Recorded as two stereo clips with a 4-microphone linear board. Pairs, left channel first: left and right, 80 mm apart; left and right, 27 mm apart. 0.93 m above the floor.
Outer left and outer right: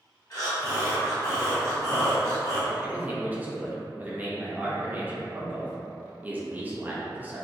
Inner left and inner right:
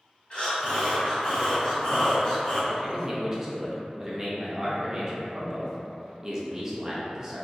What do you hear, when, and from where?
0.3 s breathing: 45° left (ahead or behind), 1.8 m
2.7 s a man speaking: 20° right (ahead or behind), 0.5 m